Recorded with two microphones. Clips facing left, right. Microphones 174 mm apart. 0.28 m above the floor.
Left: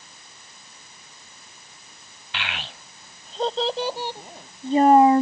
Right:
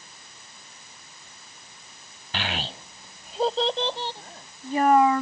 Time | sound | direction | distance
2.3 | a child speaking | 40° right (ahead or behind) | ?